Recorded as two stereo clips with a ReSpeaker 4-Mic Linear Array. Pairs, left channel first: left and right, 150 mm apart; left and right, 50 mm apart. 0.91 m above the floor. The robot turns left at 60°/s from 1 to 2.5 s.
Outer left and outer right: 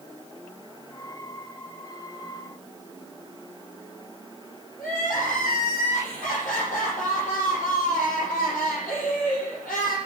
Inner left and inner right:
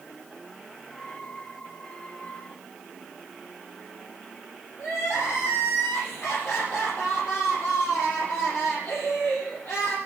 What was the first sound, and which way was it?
Crying, 65° left (ahead or behind).